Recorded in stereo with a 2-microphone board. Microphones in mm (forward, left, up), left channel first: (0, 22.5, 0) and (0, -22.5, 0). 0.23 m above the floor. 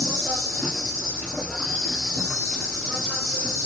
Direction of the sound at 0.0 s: 15° left (ahead or behind).